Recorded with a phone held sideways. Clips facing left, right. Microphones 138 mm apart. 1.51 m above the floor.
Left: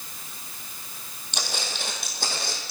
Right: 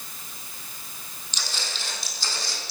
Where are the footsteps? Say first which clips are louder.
Left 4 dB; 55° left (ahead or behind), 3 m.